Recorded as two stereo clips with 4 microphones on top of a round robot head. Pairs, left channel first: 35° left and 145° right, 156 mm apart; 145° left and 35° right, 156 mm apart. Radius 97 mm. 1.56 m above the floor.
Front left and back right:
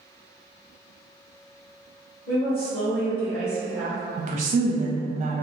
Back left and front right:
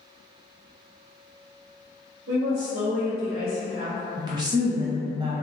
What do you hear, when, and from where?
2.3 s a woman speaking: 15° right, 1.8 m
4.2 s a woman speaking: 90° right, 0.5 m